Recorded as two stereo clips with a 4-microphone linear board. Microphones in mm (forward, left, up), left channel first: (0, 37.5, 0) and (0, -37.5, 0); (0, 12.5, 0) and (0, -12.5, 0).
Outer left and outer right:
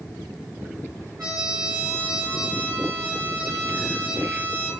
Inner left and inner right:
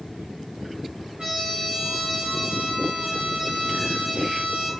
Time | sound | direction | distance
1.2 | a trumpet | 45° right (ahead or behind) | 1.6 m